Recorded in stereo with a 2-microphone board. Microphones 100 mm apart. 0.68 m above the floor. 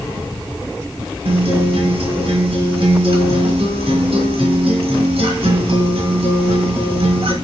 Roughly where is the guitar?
Right.